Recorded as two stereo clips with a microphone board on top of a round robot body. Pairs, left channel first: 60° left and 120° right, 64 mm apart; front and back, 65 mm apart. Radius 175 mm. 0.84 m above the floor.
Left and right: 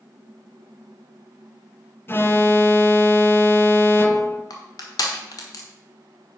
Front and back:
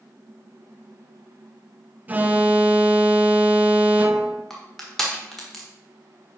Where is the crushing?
85° left, 1.3 m.